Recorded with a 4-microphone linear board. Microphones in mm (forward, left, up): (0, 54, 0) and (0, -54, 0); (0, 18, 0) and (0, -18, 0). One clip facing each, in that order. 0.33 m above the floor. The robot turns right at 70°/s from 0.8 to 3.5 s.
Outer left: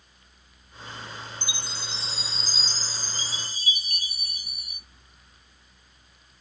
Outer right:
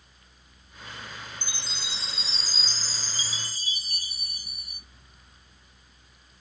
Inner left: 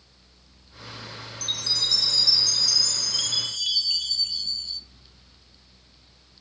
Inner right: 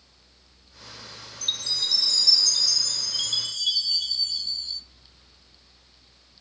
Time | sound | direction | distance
1.4 | a chime | 45° right | 1.2 m